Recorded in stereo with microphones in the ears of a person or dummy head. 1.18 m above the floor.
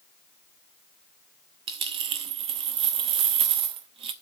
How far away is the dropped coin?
About 0.7 m.